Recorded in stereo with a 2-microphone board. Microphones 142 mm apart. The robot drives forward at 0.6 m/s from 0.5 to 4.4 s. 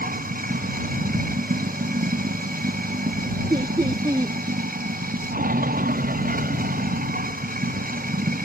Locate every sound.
0.0 s running water: 80° right
3.5 s laughter: 30° right (ahead or behind); by 4.3 s 25° right (ahead or behind)